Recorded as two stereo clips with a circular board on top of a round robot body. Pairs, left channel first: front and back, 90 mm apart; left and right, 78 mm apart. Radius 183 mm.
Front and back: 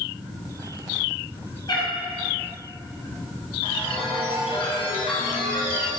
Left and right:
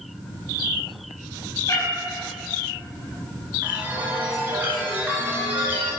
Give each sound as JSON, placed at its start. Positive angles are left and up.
{"t": 1.7, "sound": "a cat meowing", "azimuth_deg": 40, "distance_m": 2.0}
{"t": 3.6, "sound": "a chime", "azimuth_deg": -20, "distance_m": 1.9}